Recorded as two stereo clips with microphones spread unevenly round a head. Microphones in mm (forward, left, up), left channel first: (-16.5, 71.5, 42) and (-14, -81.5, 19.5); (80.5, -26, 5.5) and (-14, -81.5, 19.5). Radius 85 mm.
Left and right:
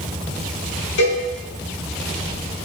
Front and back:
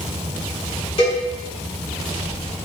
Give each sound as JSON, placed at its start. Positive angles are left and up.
{"t": 1.0, "sound": "a cowbell", "azimuth_deg": 85, "distance_m": 1.5}